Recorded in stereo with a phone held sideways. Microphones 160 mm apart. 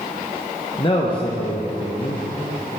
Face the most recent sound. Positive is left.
turn(degrees=35)  # may be behind; listen again after turning